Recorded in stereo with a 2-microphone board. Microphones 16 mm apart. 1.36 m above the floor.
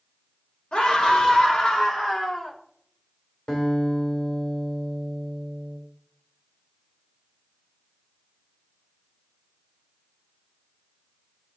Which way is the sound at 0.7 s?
80° left.